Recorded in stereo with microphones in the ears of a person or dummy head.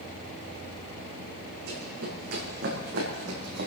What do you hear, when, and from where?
1.7 s running footsteps: 60° right (ahead or behind), 5 m; by 3.7 s 55° right (ahead or behind), 3 m